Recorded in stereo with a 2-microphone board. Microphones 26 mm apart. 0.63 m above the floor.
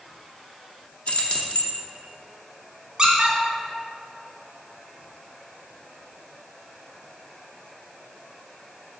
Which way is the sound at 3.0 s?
30° right (ahead or behind).